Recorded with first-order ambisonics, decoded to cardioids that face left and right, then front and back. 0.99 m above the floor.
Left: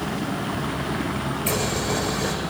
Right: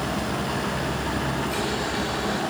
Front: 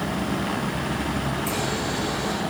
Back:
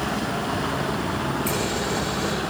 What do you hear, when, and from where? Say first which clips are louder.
1.5 s boiling: left 2 dB, back 1 dB; 115° left, 8 m